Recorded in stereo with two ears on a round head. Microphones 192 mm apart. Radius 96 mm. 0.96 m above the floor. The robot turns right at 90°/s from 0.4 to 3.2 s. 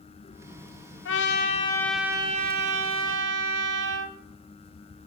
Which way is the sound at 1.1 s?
100° left.